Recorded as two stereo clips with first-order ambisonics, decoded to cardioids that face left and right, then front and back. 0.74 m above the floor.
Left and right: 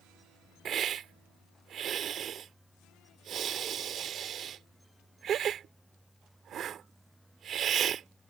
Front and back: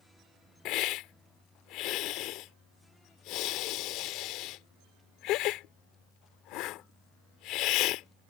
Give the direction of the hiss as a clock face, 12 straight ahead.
1 o'clock.